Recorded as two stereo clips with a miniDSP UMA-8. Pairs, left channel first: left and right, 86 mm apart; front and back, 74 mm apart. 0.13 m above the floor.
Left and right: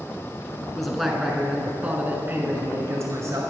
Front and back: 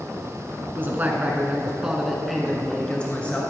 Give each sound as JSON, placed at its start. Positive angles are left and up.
{"t": 0.7, "sound": "a man speaking", "azimuth_deg": 175, "distance_m": 1.3}